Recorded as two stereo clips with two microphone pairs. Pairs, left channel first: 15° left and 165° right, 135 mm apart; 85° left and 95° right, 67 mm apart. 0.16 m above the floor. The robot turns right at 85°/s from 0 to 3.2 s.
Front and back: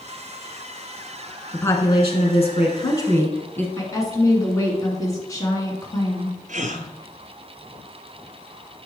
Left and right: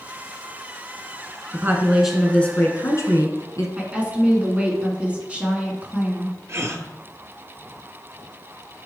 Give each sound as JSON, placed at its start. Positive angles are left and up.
{"t": 1.5, "sound": "a woman speaking", "azimuth_deg": -60, "distance_m": 1.6}
{"t": 3.8, "sound": "a woman speaking", "azimuth_deg": -35, "distance_m": 1.9}
{"t": 6.5, "sound": "a gasp", "azimuth_deg": -140, "distance_m": 0.7}